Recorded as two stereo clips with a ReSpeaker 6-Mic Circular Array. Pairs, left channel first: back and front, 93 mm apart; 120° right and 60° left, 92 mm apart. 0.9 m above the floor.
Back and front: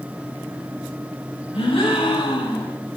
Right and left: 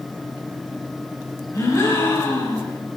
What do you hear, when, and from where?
1.5 s a gasp: 175° right, 6.5 m